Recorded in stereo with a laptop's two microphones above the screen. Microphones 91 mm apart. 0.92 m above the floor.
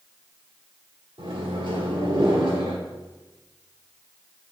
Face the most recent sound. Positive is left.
turn(degrees=-75)  # may be behind; listen again after turning